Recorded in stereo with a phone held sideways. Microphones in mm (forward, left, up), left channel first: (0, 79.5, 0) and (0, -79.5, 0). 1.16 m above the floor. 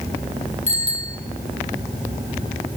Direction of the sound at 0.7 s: 40° right (ahead or behind).